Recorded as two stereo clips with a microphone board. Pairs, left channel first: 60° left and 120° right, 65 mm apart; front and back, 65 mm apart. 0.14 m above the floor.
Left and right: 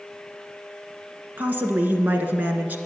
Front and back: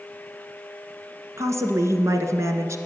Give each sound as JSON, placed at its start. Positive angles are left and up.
{"t": 1.4, "sound": "a woman speaking", "azimuth_deg": -170, "distance_m": 1.7}